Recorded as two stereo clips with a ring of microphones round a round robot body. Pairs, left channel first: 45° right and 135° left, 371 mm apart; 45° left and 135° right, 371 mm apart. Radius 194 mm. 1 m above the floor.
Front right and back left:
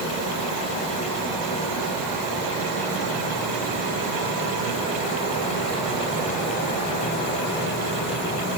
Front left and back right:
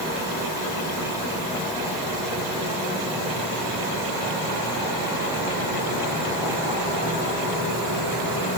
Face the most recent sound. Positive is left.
No sound to turn to.